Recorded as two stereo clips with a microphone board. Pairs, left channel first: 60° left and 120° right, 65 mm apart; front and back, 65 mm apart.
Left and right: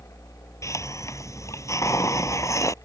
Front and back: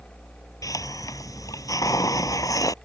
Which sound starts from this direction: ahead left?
A hiss, at 0.6 s.